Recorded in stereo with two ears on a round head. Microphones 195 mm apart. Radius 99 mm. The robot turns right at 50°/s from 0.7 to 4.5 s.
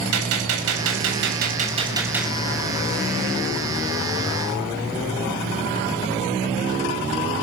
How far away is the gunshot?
About 6 m.